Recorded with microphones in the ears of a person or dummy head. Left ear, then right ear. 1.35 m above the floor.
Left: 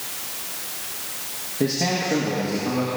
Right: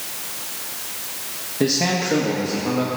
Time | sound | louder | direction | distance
1.6 | a man speaking | right 3 dB | 15° right (ahead or behind) | 2 m